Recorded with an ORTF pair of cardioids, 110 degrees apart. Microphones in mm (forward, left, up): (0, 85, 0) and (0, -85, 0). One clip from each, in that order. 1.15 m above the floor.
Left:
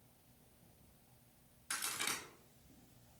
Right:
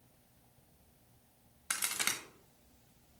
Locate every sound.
1.7 s a crack: 50° right, 0.8 m